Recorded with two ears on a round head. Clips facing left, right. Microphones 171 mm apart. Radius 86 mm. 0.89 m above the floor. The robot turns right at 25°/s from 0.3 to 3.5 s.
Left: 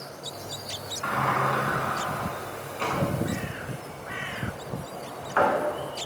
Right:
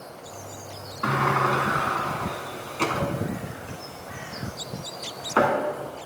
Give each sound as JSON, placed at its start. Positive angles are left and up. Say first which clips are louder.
{"t": 1.0, "sound": "a sliding door", "louder": "right 3 dB", "side_deg": -60, "distance_m": 1.9}